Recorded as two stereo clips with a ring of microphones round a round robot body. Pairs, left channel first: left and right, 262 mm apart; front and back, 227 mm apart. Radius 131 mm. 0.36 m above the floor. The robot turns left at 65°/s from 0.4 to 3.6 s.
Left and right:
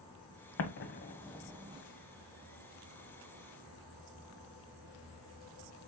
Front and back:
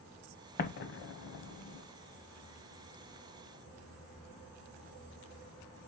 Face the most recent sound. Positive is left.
turn(degrees=-140)